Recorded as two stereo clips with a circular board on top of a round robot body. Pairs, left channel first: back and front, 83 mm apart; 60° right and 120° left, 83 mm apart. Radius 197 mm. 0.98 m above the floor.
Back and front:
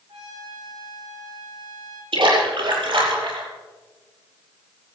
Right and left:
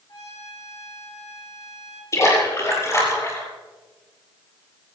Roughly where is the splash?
Ahead.